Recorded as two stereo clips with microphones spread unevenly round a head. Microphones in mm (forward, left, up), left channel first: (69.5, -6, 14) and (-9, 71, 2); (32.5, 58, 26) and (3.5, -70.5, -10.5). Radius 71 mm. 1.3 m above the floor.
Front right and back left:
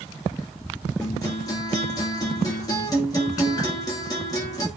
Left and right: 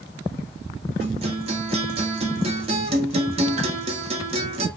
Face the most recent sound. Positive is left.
turn(degrees=-110)